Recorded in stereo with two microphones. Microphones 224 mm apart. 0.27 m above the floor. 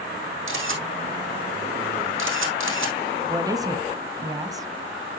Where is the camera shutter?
70° right (ahead or behind), 4.5 m.